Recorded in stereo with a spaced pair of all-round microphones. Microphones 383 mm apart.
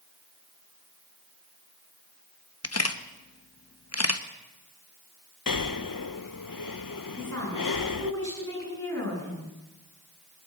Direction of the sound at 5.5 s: 55° left (ahead or behind).